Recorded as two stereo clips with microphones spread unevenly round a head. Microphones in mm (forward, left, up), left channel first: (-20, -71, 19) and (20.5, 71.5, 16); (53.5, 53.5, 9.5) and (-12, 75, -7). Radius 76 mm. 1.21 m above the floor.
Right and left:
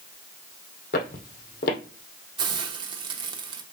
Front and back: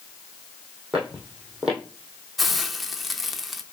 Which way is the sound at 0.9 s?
110° right.